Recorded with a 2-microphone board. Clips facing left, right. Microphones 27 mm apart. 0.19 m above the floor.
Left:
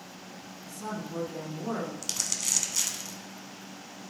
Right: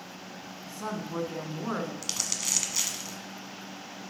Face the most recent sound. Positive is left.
turn(degrees=-10)  # may be behind; listen again after turning